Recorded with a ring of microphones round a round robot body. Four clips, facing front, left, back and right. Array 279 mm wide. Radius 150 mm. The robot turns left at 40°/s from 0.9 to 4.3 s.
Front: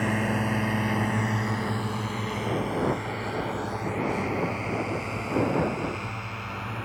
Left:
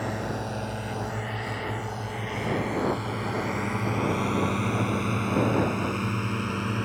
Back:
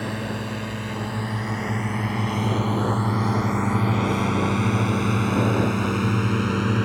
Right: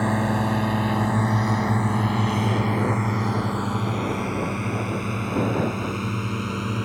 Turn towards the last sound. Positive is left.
turn(degrees=-175)